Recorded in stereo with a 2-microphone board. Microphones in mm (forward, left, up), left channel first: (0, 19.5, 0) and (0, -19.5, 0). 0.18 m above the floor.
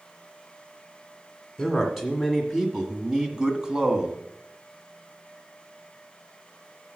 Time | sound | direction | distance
1.6 | a man speaking | centre (ahead or behind) | 1.8 m